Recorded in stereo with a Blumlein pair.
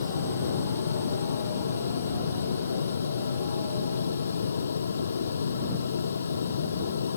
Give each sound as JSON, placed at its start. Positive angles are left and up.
{"t": 0.0, "sound": "a fan", "azimuth_deg": 70}